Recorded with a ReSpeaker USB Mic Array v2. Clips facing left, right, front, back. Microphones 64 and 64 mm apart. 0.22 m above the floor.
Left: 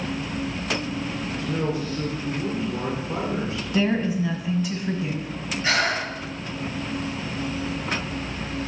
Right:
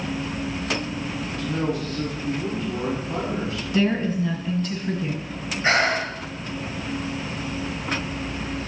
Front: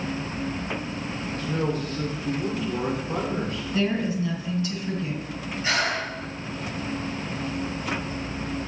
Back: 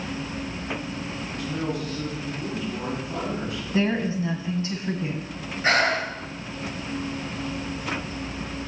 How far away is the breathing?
About 1.5 m.